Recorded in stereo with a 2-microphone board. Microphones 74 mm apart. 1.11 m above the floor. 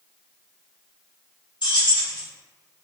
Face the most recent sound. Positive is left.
turn(degrees=75)  # may be behind; listen again after turning